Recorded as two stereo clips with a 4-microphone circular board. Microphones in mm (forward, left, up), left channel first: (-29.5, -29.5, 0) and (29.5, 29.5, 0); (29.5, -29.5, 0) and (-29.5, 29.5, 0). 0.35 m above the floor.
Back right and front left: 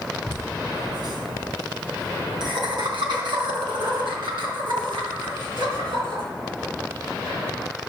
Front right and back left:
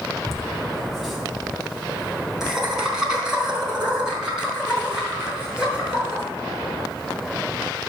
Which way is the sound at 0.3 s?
45° left.